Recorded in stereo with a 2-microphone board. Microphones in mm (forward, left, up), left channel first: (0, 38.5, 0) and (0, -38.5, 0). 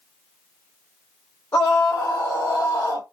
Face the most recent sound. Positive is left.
turn(degrees=50)  # may be behind; listen again after turning